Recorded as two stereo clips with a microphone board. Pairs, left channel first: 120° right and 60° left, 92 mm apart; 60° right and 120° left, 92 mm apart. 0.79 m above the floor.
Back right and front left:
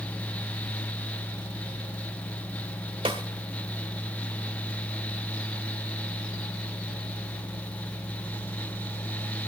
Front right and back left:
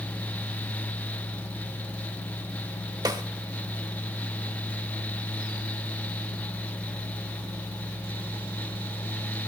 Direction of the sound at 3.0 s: 75° left.